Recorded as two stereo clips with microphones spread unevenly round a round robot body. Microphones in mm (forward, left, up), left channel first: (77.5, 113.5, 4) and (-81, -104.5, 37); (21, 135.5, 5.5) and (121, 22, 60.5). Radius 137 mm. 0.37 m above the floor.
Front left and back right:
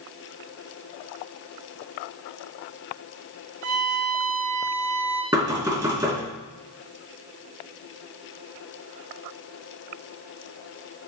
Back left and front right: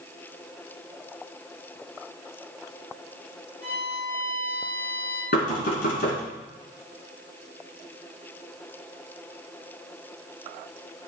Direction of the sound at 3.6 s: 115° right.